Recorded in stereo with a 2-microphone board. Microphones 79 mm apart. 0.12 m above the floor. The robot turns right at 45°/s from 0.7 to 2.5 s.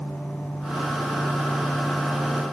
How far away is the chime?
I don't hear a chime.